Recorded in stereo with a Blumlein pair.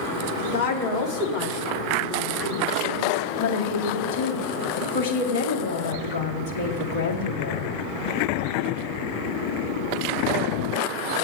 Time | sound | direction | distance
0.4 | a woman speaking | 45° left | 2.5 m
3.4 | a woman speaking | 50° left | 1.8 m